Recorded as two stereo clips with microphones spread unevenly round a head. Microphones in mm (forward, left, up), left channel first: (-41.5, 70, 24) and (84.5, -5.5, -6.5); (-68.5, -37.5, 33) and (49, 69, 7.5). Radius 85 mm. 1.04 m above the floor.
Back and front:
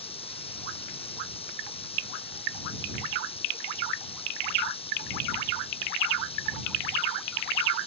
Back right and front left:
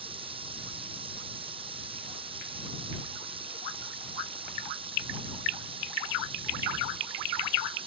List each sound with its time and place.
0.0 s running water: 100° left